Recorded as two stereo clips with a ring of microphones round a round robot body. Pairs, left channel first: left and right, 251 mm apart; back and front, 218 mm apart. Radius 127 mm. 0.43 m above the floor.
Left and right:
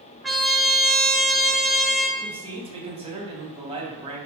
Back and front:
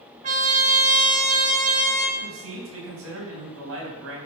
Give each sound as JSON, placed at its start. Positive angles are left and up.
{"t": 0.2, "sound": "a trumpet", "azimuth_deg": 0, "distance_m": 1.3}
{"t": 2.2, "sound": "a man speaking", "azimuth_deg": -25, "distance_m": 3.0}